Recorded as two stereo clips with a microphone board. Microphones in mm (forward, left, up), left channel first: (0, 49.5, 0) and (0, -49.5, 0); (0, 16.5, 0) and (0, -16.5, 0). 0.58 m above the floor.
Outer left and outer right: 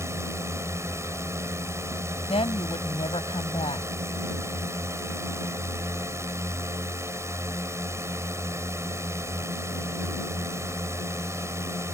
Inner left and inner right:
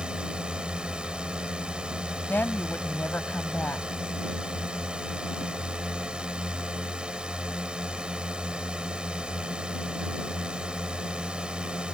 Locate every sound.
0.0 s a drone: 25° right (ahead or behind)
2.3 s a woman speaking: 75° left (ahead or behind)